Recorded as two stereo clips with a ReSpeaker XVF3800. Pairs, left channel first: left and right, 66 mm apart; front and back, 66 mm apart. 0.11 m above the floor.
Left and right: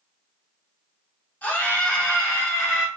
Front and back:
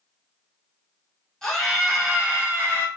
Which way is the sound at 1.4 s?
70° left.